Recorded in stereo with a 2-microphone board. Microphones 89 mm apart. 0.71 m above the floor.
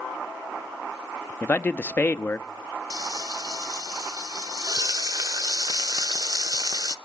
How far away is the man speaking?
About 0.6 m.